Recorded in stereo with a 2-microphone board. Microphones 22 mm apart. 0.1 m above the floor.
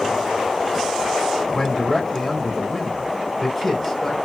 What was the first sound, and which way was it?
A man speaking, 15° left (ahead or behind).